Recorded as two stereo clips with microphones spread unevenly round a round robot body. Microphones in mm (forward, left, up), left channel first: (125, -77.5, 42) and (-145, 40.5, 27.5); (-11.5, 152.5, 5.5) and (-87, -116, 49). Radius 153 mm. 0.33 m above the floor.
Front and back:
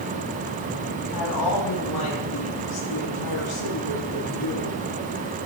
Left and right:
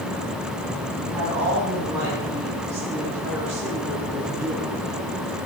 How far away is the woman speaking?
About 3 m.